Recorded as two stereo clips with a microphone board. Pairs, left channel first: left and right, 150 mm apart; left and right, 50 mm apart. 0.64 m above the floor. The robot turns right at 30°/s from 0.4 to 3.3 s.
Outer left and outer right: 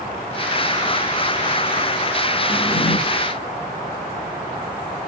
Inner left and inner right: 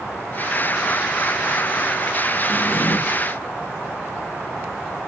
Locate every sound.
2.5 s a drawer: 80° left, 1.6 m; by 3.0 s 65° left (ahead or behind), 1.6 m